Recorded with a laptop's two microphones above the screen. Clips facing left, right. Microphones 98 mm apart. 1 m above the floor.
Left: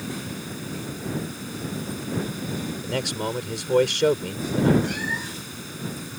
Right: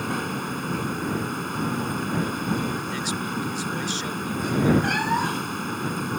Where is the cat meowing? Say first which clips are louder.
Right 6 dB; 65° right (ahead or behind).